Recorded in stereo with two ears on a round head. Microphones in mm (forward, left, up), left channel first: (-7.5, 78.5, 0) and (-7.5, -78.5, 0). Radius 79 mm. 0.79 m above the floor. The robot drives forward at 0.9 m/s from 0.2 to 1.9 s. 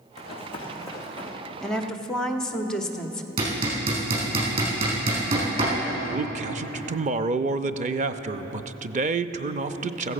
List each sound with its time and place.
0.2 s running footsteps: 40° left (ahead or behind), 3 m; by 1.3 s 10° left (ahead or behind), 4 m
1.6 s a woman speaking: 5° left (ahead or behind), 1.0 m
3.4 s hammering: 35° right (ahead or behind), 5 m
6.0 s a man speaking: 40° right (ahead or behind), 0.5 m